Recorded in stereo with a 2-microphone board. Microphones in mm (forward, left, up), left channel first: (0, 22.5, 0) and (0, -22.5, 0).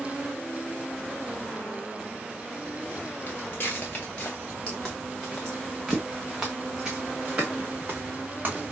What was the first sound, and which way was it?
Footsteps, 45° left (ahead or behind).